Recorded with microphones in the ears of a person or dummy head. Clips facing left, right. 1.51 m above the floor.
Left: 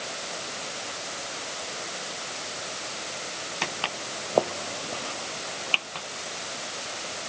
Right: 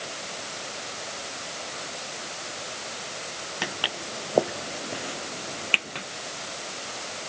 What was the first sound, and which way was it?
Footsteps, 10° right (ahead or behind).